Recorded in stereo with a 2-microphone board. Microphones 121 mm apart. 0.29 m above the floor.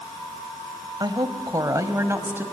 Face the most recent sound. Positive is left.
turn(degrees=-20)  # may be behind; listen again after turning